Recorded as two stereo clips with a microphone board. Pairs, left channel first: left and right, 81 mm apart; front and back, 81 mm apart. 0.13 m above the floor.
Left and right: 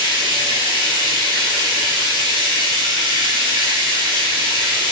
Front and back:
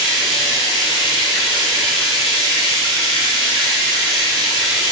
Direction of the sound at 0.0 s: 85° right.